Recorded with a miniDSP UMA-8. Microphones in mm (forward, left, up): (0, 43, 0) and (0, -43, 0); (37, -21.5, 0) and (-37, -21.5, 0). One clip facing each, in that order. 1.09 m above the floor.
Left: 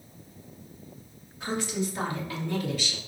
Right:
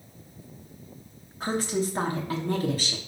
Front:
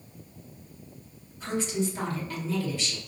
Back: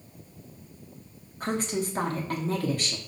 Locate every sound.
1.4 s a woman speaking: 140° right, 2.5 m